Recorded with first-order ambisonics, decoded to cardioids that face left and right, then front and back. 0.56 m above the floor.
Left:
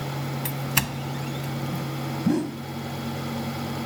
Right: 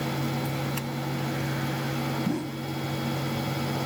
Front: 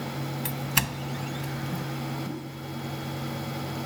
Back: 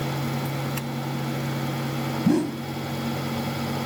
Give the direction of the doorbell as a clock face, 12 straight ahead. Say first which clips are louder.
Left 4 dB, front 2 dB; 10 o'clock.